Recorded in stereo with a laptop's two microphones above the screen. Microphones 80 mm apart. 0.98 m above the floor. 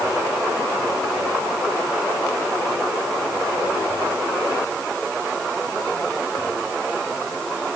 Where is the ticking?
No ticking in this recording.